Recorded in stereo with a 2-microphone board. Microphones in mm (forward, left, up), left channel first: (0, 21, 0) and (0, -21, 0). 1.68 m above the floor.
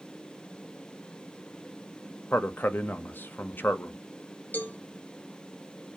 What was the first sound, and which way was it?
A man speaking, 50° left (ahead or behind).